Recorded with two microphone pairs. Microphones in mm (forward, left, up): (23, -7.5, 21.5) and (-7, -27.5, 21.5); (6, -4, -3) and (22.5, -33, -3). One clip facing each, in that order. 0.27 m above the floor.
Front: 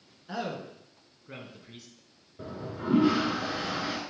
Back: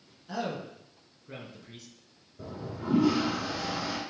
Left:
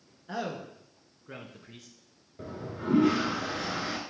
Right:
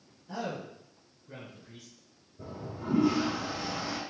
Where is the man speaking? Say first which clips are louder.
Back 1 dB, left 2 dB; 100° left, 3 m; by 1.9 s 120° left, 2 m.